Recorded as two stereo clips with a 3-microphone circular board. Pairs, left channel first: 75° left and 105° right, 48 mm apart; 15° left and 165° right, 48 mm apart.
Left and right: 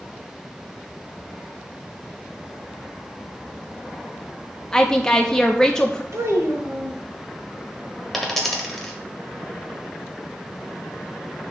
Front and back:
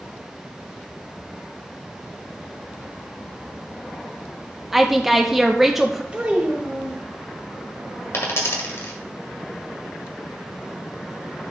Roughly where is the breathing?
I don't hear breathing.